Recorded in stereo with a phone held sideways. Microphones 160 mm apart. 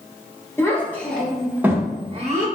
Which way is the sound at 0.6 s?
15° left (ahead or behind).